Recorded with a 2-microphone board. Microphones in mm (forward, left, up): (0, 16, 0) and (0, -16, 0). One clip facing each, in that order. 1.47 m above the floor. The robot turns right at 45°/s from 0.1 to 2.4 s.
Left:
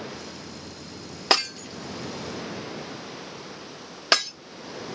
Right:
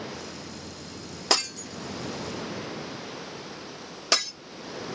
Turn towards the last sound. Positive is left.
turn(degrees=35)  # may be behind; listen again after turning